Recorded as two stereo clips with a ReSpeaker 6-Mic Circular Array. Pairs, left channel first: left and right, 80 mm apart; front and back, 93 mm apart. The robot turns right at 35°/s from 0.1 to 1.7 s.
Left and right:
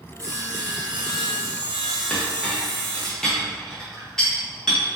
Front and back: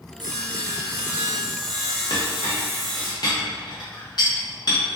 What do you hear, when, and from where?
0.2 s sawing: 140° right, 0.6 m; by 3.1 s 90° right, 0.6 m
2.1 s a clink: 10° left, 0.7 m